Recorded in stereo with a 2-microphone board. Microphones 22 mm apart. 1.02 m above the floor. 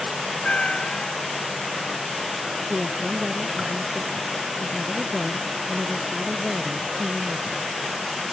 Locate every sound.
0.4 s a cat meowing: 50° left (ahead or behind)
2.7 s a woman speaking: 25° right (ahead or behind)